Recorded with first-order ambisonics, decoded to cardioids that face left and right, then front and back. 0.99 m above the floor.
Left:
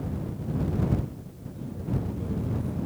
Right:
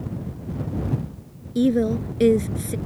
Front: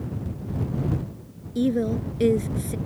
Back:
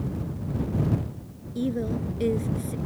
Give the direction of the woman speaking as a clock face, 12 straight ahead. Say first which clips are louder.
Right 16 dB, front 5 dB; 2 o'clock.